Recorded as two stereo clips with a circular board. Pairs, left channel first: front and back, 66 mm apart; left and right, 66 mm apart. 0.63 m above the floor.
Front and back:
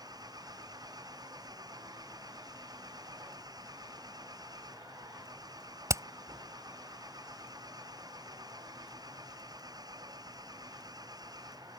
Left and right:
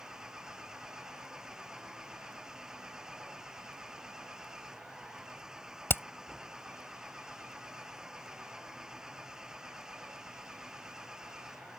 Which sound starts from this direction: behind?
An engine running, at 0.0 s.